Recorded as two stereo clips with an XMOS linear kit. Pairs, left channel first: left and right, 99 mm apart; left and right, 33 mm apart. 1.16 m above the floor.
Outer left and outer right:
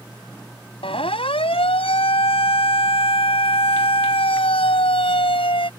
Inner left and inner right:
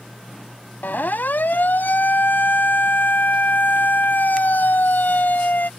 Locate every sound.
0.8 s a siren: 75° left (ahead or behind); by 5.7 s 70° left (ahead or behind)